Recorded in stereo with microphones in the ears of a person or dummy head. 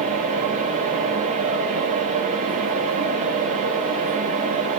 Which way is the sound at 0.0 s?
40° right (ahead or behind).